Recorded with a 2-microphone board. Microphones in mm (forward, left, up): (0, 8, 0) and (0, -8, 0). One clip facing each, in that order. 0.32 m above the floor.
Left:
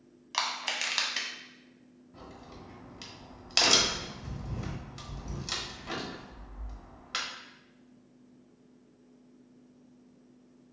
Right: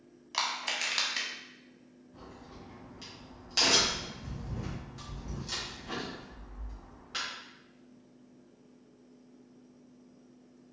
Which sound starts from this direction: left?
A crack, at 2.1 s.